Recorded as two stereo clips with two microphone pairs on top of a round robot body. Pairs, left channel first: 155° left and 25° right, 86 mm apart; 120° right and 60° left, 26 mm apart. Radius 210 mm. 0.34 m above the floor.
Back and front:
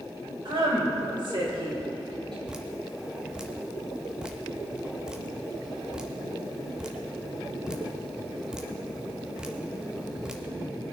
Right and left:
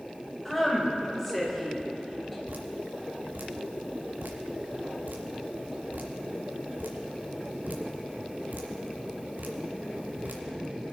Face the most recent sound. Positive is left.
turn(degrees=55)